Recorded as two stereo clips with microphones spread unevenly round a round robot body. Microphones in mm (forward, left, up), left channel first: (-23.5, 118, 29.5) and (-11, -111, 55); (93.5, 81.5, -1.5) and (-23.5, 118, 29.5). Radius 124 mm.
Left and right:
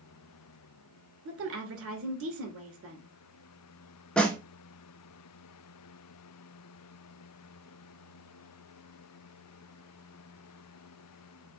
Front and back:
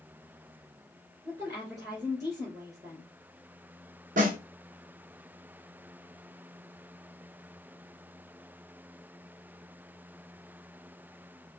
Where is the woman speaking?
120° right, 2 m.